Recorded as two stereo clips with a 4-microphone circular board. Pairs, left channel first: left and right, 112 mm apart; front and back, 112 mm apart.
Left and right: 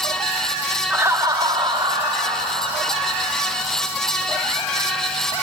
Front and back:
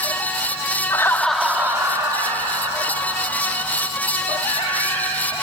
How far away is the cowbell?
I don't hear a cowbell.